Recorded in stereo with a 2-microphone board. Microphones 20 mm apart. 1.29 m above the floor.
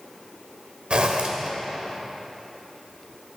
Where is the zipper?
55° right (ahead or behind), 1.8 m.